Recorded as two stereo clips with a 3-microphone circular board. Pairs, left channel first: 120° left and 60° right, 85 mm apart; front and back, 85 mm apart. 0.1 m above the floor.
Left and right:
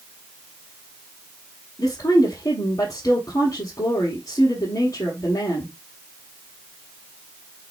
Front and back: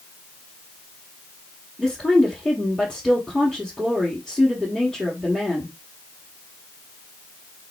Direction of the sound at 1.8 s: 90° left.